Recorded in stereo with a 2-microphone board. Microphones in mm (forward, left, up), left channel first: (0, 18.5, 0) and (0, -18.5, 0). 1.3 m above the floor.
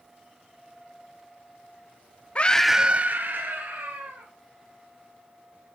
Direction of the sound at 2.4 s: 30° left (ahead or behind).